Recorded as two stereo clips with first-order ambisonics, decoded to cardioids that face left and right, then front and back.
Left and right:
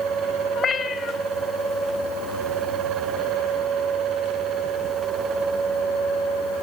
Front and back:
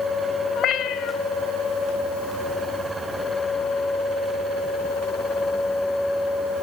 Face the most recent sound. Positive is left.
turn(degrees=30)